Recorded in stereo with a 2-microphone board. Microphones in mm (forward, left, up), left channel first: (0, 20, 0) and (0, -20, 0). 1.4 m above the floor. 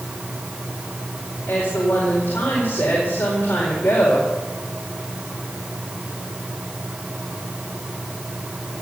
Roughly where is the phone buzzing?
No phone buzzing in this recording.